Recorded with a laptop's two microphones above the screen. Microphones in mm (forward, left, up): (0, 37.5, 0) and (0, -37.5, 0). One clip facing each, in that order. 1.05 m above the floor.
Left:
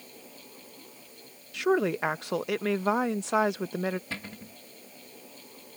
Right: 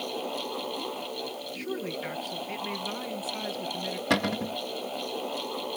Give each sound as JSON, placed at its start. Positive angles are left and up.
{"t": 0.0, "sound": "a fan", "side_deg": -70}
{"t": 1.5, "sound": "a woman speaking", "side_deg": 70}
{"t": 4.1, "sound": "a cupboard door", "side_deg": -70}